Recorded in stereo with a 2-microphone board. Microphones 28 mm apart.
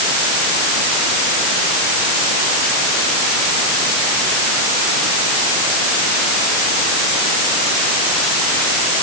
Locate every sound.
Only background noise.